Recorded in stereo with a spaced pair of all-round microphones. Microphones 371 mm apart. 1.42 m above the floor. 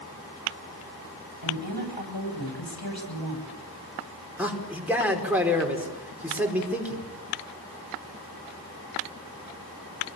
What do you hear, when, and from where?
1.4 s a woman speaking: 80° left, 10 m
4.4 s a man speaking: 5° right (ahead or behind), 5 m